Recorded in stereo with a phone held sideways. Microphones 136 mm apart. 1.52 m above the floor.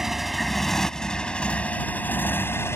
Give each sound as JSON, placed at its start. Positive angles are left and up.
{"t": 0.0, "sound": "a motorcycle", "side_deg": -5}